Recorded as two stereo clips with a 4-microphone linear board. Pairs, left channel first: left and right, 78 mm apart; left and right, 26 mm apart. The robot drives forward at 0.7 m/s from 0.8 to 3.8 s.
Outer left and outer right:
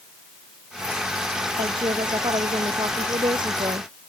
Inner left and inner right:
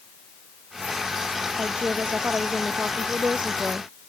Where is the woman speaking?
80° right; by 3.9 s 75° right (ahead or behind).